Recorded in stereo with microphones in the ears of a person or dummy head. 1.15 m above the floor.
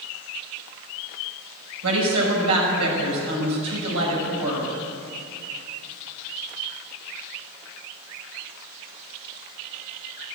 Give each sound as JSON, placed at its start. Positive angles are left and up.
{"t": 1.8, "sound": "a woman speaking", "side_deg": -80, "distance_m": 5.5}